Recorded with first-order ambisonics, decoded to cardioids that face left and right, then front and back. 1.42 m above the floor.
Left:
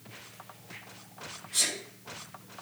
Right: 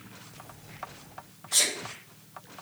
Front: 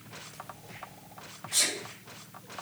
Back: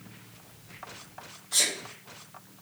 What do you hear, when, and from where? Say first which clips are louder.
1.5 s a sneeze: right 4 dB, back 2 dB; 125° right, 2.5 m